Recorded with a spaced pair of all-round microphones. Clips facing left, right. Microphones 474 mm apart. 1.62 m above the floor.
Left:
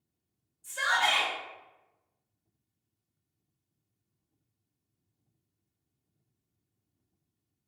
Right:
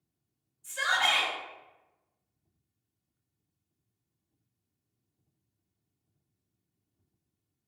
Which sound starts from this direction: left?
A shout, at 0.6 s.